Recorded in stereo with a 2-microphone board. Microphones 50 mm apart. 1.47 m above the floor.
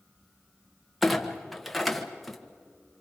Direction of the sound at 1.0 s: Centre (ahead or behind).